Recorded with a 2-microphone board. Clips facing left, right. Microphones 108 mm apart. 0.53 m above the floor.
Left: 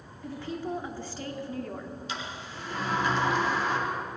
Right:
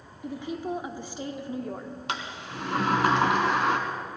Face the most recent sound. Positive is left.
turn(degrees=-85)